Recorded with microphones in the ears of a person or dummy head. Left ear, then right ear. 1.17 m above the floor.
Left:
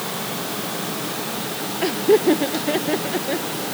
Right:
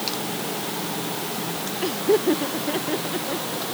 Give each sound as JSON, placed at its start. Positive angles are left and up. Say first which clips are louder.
{"t": 1.8, "sound": "laughter", "louder": "left 4 dB", "side_deg": 15}